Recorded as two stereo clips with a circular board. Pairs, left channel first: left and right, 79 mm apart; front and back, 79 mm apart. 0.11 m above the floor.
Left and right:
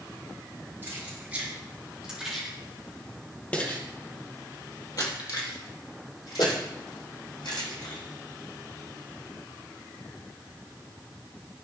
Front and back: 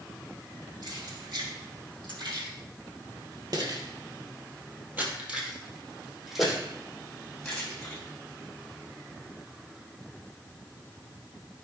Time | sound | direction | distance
0.8 | keys jangling | 155° right | 3.5 m